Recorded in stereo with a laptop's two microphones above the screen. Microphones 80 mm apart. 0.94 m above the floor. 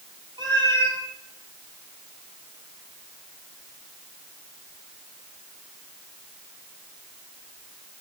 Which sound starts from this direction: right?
A cat meowing, at 0.4 s.